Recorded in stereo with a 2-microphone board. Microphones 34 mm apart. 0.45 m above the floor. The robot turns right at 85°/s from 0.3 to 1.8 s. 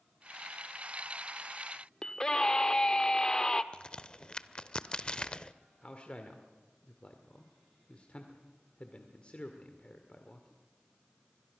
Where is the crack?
25° left (ahead or behind), 0.5 m.